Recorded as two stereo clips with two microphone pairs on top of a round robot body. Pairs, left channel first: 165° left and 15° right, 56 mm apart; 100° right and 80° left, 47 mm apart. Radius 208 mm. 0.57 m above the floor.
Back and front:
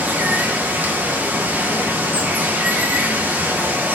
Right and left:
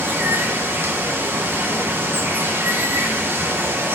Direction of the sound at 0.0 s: 45° left.